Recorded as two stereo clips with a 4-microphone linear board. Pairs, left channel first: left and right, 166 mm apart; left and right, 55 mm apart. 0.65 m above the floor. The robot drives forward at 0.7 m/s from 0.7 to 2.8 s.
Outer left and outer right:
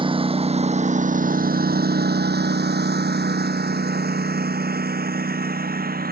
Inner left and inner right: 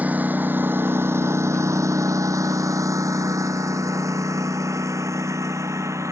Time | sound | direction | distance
0.0 | a lawn mower | 30° right (ahead or behind) | ?